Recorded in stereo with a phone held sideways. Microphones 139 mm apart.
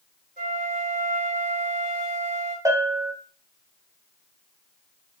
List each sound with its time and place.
0.4 s a flute: 70° right (ahead or behind), 1.5 m
2.6 s a bell: 25° right (ahead or behind), 0.8 m